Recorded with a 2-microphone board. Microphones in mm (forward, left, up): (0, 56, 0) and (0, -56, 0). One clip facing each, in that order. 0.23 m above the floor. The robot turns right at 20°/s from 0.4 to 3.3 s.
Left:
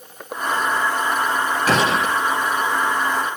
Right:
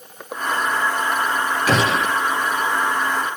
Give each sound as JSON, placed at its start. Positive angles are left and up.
{"t": 1.7, "sound": "a gunshot", "side_deg": 40, "distance_m": 2.5}